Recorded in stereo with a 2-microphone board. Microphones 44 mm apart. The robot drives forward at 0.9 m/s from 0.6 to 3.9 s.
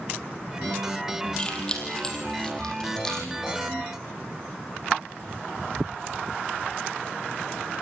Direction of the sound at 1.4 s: 20° left (ahead or behind).